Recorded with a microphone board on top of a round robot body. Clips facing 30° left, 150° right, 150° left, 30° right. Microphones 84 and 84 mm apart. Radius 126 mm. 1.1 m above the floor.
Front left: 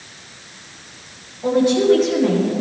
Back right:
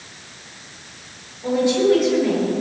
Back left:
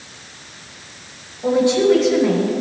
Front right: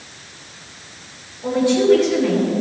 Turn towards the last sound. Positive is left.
turn(degrees=80)